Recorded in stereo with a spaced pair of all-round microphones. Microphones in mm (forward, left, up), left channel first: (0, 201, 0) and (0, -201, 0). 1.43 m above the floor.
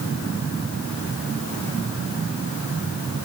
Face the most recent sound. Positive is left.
No sound to turn to.